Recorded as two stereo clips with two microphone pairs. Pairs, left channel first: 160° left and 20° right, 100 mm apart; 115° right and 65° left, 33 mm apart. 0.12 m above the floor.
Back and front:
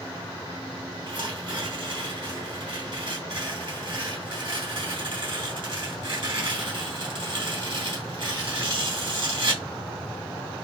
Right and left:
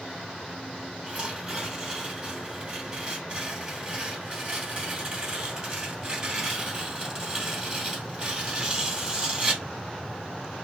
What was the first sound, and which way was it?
Tearing paper, 10° left.